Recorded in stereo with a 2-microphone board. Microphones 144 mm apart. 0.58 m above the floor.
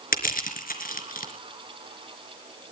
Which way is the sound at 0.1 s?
75° left (ahead or behind).